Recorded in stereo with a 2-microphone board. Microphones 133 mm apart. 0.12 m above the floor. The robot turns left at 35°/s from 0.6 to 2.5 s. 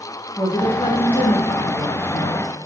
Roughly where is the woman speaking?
Behind left.